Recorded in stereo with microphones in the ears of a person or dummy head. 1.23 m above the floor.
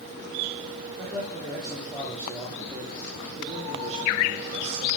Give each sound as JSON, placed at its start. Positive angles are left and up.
{"t": 1.0, "sound": "a man speaking", "side_deg": 5, "distance_m": 3.5}